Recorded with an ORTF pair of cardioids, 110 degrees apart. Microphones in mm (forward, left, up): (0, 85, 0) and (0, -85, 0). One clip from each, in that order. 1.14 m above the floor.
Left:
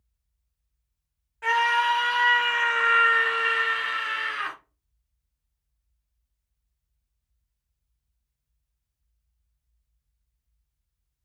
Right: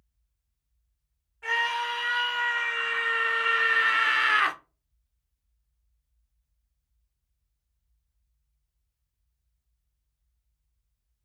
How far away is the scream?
About 1.2 m.